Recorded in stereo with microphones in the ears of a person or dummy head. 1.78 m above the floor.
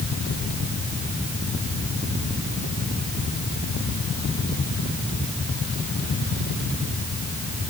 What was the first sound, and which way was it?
Only background noise.